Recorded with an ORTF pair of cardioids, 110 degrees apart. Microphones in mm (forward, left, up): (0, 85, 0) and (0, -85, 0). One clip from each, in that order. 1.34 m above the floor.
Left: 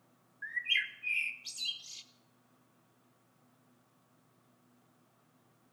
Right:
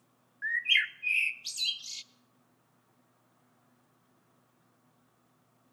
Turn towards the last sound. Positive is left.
turn(degrees=-35)